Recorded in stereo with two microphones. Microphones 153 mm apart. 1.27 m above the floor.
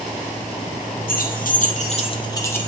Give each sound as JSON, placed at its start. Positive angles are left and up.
{"t": 1.1, "sound": "keys jangling", "side_deg": 80, "distance_m": 1.7}